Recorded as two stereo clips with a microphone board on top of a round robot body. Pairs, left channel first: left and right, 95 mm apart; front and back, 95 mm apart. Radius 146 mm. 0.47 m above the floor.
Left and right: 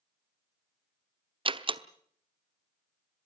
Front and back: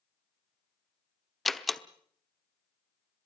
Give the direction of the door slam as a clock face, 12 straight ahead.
3 o'clock.